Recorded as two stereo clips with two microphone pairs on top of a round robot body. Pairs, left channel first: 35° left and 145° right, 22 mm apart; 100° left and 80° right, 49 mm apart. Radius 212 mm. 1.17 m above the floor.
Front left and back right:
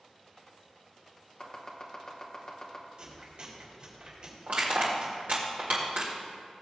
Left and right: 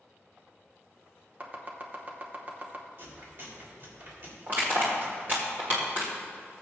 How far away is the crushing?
About 1.5 m.